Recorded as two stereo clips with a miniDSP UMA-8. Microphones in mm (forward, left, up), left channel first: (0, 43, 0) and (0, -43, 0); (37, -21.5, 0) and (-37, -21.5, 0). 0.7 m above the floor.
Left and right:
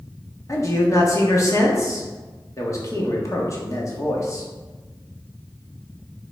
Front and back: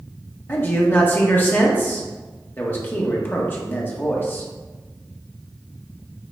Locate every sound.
0.5 s a man speaking: 55° left, 1.5 m